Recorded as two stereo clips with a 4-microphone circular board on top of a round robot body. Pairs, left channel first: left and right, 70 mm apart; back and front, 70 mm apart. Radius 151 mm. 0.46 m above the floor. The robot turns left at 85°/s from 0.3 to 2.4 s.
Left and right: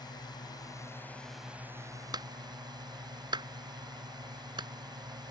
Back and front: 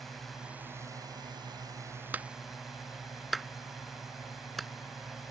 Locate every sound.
0.0 s a drone: 90° left; by 5.3 s 90° right
2.1 s a clap: 65° right; by 4.7 s 90° right